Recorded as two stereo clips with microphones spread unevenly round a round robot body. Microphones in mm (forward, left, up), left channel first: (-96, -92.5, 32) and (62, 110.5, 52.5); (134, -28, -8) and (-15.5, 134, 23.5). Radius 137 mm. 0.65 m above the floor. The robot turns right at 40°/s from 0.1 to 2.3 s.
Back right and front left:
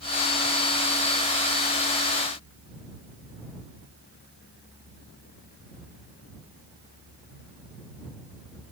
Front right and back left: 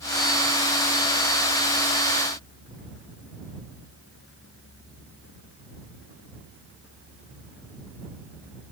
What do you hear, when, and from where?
Only background noise.